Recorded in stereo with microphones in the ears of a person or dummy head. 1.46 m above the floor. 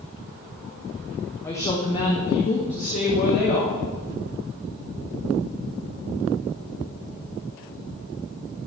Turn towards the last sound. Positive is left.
turn(degrees=45)  # may be behind; listen again after turning